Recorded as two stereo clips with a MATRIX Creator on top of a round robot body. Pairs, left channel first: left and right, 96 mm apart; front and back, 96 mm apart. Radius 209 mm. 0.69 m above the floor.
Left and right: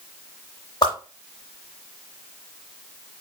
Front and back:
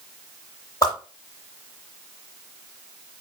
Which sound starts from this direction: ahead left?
A whoosh, at 0.8 s.